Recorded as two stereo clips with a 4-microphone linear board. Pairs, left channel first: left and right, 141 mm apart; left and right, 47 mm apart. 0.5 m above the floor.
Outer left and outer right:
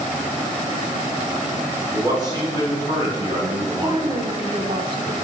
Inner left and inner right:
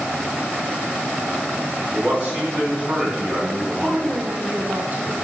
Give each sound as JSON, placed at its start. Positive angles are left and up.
{"t": 1.9, "sound": "a man speaking", "side_deg": -30, "distance_m": 3.5}
{"t": 3.6, "sound": "a woman speaking", "side_deg": -35, "distance_m": 1.3}